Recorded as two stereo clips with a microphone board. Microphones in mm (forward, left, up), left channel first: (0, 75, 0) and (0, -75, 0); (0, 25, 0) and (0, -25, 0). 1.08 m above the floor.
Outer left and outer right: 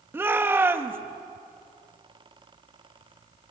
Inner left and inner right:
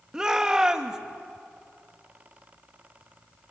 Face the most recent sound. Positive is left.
turn(degrees=-15)  # may be behind; listen again after turning